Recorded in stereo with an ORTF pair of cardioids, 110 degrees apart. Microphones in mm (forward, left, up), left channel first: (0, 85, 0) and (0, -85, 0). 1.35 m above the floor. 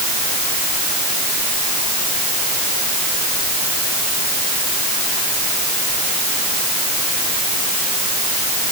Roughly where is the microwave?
No microwave in this recording.